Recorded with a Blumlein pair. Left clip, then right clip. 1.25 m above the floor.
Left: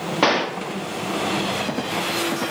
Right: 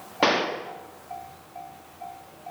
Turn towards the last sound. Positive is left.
turn(degrees=10)